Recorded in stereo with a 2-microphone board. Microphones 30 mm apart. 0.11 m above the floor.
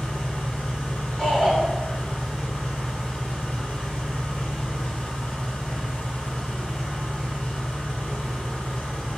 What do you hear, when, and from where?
0.0 s an engine running: 40° left (ahead or behind), 1.8 m
1.2 s a shout: 15° left (ahead or behind), 1.9 m